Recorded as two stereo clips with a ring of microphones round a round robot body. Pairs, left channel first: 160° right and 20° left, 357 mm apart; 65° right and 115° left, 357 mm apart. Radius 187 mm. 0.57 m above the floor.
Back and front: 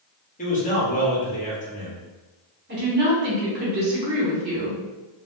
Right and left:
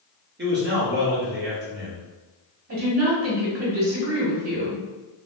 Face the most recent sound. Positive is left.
turn(degrees=75)